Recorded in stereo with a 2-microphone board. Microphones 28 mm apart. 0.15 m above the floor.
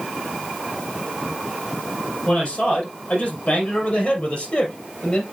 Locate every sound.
2.3 s a man speaking: 60° left (ahead or behind), 4.5 m; by 5.2 s 50° left (ahead or behind), 3 m